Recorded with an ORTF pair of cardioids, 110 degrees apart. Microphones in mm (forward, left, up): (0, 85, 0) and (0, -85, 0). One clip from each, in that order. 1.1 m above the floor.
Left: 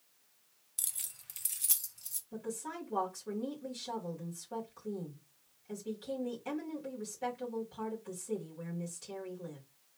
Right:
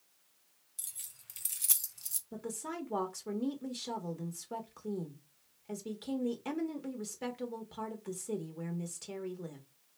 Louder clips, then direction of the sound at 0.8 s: Left 6 dB; 40° left.